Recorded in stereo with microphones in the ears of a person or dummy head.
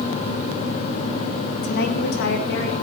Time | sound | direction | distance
1.6 | a woman speaking | 55° left (ahead or behind) | 1.9 m